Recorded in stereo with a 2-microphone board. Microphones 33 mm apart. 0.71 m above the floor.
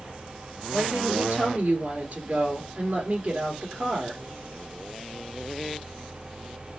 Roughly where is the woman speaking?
Right.